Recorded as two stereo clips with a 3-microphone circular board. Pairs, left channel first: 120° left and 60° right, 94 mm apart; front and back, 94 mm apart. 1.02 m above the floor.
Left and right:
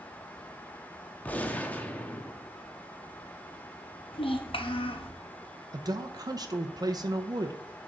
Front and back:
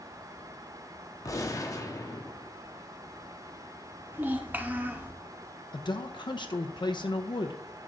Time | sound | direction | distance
1.2 | a gunshot | 50° left | 0.7 m
4.1 | a child speaking | 110° left | 0.8 m
5.7 | a man speaking | 20° right | 0.5 m